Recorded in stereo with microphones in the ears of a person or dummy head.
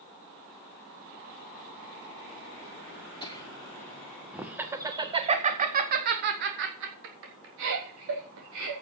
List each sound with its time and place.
3.2 s laughter: 25° left (ahead or behind), 2 m; by 8.7 s 80° right, 4 m